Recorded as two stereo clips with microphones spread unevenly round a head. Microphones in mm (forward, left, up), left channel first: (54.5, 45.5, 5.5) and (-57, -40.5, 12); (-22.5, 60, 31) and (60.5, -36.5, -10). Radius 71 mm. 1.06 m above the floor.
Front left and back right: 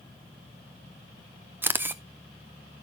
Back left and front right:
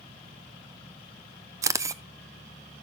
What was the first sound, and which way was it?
A camera shutter, 70° right.